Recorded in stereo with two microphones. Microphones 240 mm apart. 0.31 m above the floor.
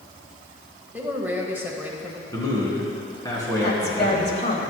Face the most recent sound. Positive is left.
turn(degrees=45)  # may be behind; listen again after turning